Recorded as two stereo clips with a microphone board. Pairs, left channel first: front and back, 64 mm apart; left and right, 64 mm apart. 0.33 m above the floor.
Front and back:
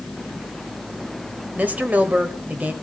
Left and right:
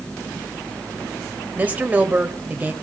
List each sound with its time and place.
1.6 s a woman speaking: 135° right, 1.6 m